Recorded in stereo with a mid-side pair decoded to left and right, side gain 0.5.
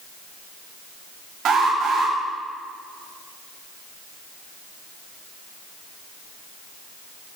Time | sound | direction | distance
1.4 | an alarm | 55° right | 6.5 m